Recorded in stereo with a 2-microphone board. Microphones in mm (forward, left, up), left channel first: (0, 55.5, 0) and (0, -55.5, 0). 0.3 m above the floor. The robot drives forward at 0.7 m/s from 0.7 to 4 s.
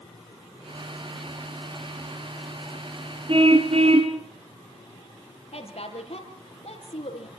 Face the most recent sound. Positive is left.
turn(degrees=65)  # may be behind; listen again after turning